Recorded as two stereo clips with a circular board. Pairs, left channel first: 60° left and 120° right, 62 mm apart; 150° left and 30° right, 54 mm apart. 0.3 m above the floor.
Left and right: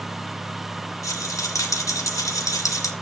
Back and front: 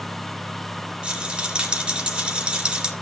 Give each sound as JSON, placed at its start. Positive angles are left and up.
{"t": 1.0, "sound": "a rattle", "azimuth_deg": 40, "distance_m": 2.5}